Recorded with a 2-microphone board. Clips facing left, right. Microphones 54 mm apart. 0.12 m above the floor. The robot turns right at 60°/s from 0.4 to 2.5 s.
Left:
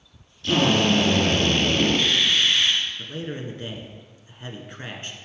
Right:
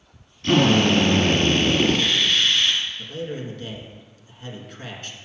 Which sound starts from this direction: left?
A man speaking, at 3.0 s.